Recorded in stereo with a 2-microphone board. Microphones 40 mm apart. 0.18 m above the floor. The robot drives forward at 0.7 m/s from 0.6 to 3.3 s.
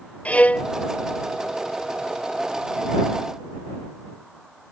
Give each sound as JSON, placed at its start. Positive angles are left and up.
{"t": 0.2, "sound": "a violin", "side_deg": 30}